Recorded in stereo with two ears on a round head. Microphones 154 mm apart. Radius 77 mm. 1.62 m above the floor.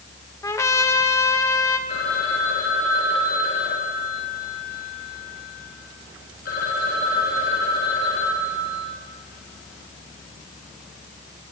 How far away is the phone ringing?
About 5.5 m.